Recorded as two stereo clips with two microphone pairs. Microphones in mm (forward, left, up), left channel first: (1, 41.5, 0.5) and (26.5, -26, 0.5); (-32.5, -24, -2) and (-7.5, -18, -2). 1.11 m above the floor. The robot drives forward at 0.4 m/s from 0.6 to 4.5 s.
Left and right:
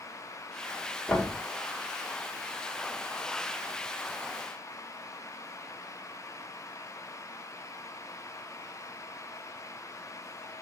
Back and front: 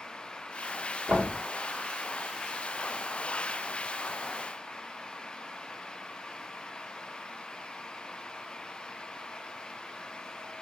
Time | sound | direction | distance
1.1 | knocking | 30° left | 1.7 m